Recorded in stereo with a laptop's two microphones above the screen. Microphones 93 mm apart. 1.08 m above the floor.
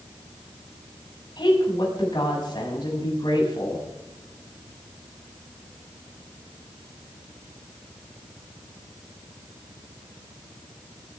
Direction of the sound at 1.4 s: 55° left (ahead or behind).